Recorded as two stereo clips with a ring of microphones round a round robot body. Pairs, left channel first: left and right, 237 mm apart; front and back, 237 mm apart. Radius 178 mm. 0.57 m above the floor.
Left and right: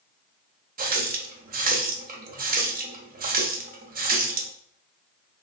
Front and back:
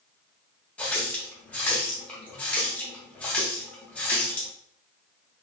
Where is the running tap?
80° right, 0.6 m.